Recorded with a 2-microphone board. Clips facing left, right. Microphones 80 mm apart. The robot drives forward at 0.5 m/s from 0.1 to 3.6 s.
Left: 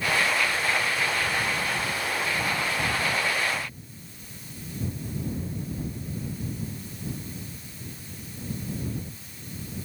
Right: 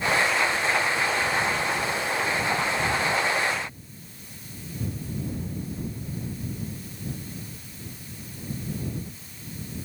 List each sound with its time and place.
Only background noise.